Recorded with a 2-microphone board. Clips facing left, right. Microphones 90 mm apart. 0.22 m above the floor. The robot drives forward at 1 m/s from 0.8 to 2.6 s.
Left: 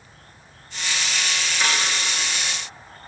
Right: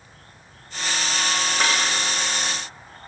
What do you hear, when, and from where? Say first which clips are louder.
1.6 s a snare drum: right 1 dB; 45° right (ahead or behind), 7.5 m